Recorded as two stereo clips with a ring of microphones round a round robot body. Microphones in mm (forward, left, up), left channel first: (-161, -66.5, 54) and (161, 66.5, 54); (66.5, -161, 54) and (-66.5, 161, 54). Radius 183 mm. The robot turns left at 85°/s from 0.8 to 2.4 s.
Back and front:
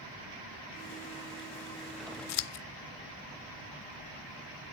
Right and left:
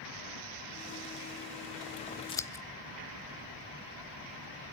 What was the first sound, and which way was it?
Scissors, 140° right.